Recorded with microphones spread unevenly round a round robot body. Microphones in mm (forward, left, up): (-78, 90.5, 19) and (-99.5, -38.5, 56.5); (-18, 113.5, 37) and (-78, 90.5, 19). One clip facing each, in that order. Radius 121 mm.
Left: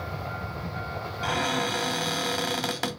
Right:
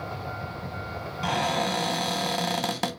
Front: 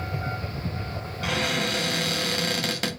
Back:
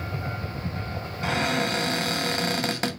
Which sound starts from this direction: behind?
A cupboard door, at 1.2 s.